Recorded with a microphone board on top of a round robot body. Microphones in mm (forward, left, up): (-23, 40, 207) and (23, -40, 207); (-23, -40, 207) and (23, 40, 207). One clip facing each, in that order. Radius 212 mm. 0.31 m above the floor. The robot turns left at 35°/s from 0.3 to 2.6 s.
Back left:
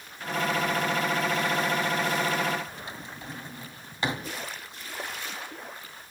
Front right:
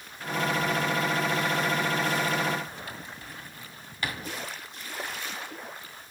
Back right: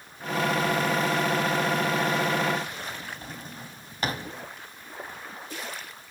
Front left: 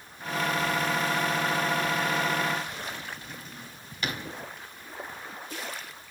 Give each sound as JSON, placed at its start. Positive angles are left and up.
{"t": 2.9, "sound": "a drawer", "azimuth_deg": -175, "distance_m": 2.5}